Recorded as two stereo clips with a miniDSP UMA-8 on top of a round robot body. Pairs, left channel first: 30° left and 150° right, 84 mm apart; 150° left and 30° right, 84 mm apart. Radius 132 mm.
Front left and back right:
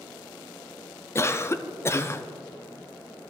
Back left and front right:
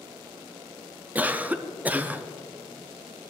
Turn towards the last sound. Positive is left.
turn(degrees=20)